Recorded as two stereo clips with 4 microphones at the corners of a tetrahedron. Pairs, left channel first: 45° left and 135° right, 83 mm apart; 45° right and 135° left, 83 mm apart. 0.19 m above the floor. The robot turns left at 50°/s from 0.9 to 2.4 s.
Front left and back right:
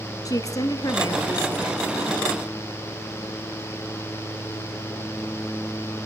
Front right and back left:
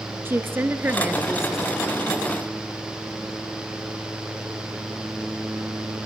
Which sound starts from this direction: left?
A woman speaking, at 0.2 s.